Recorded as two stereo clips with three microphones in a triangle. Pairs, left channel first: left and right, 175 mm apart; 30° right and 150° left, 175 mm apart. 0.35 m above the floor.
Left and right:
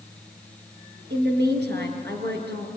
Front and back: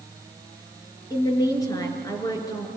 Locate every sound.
1.1 s a woman speaking: 100° right, 4.5 m